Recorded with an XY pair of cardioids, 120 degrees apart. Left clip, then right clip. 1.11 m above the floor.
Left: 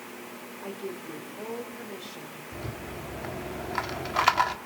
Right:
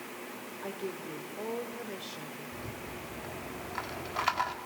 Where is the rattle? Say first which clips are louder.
Left 3 dB; 40° left, 1.8 m.